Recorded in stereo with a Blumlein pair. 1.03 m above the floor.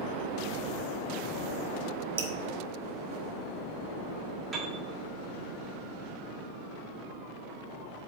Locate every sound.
2.2 s dripping: 60° right, 0.9 m
4.5 s a piano: 20° right, 1.7 m